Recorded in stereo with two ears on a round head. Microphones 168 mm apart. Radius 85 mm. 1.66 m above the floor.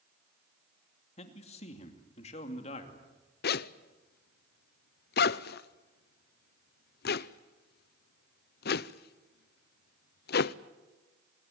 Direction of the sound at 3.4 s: 60° left (ahead or behind).